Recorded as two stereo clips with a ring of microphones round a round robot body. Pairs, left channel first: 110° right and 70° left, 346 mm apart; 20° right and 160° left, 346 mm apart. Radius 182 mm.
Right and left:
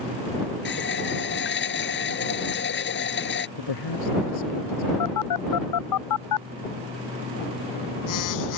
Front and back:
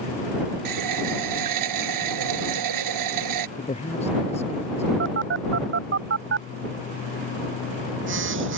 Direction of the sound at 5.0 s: 145° right.